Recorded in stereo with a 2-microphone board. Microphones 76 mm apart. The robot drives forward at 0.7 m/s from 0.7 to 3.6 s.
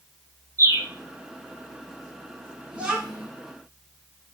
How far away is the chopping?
No chopping in this recording.